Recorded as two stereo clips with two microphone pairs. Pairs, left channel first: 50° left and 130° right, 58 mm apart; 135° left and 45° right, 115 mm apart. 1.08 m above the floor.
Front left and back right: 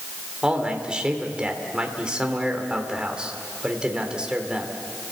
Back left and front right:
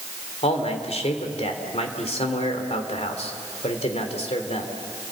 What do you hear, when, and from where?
0.4 s a man speaking: 160° left, 3 m